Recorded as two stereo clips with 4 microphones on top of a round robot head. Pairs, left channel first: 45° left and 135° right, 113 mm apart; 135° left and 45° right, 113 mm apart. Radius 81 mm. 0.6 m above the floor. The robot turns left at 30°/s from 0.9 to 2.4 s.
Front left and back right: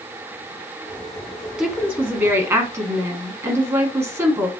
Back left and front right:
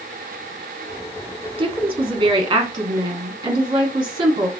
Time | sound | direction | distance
1.6 | a woman speaking | 55° right | 1.0 m